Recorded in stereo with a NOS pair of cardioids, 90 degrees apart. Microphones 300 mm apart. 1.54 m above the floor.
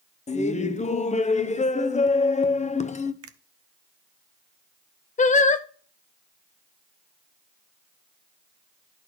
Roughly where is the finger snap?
Ahead right.